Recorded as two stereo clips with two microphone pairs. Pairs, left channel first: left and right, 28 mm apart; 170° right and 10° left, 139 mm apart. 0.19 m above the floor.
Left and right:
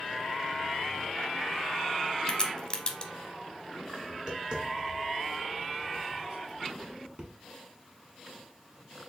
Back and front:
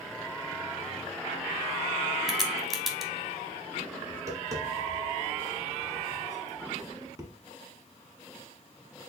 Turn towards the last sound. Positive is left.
turn(degrees=-55)